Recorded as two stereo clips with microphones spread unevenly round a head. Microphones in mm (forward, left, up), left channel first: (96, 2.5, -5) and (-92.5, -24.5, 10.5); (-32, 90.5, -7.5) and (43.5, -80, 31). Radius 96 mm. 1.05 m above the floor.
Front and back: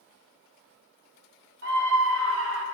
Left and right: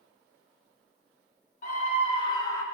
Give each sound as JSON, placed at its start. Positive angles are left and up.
{"t": 1.6, "sound": "a scream", "azimuth_deg": 155, "distance_m": 1.7}